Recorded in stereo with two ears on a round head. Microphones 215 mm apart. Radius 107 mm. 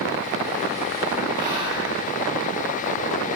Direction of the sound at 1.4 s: 15° right (ahead or behind).